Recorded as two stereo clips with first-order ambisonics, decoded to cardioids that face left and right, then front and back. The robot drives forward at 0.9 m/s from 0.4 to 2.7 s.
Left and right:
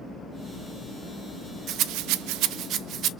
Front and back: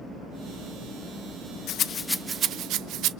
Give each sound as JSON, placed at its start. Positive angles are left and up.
{"t": 1.7, "sound": "a rattle", "azimuth_deg": -45, "distance_m": 0.6}